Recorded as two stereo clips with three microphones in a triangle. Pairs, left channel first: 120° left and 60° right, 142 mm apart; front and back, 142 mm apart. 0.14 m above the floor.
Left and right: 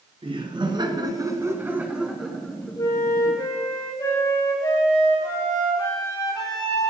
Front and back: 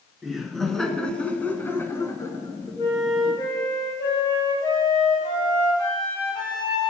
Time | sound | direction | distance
0.2 | laughter | 90° right | 1.9 m
2.8 | a flute | 60° left | 4.5 m